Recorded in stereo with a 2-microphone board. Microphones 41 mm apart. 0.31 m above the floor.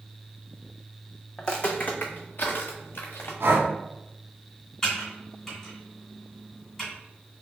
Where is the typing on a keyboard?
5° left (ahead or behind), 1.9 m.